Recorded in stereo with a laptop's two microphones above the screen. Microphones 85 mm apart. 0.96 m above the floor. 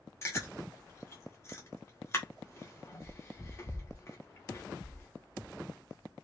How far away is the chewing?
About 0.9 m.